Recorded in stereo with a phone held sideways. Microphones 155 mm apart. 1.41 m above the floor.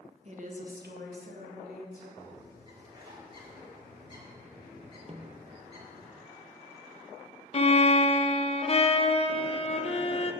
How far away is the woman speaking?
About 1.4 m.